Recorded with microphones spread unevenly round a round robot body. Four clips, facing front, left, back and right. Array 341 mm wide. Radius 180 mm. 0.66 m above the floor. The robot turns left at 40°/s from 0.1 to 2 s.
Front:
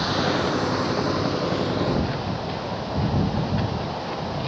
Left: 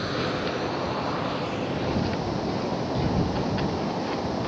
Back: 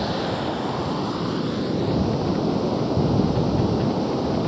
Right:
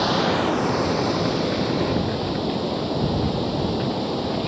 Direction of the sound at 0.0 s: 90° right.